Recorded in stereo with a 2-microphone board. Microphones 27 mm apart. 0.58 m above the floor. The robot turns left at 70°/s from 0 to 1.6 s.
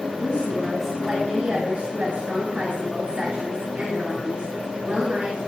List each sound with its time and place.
0.2 s a woman speaking: 50° left, 6.5 m; by 5.4 s 45° right, 6.5 m